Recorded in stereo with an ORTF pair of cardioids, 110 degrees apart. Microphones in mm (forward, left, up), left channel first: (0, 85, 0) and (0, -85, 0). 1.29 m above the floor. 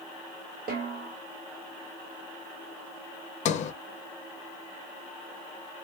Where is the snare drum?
70° right, 2 m.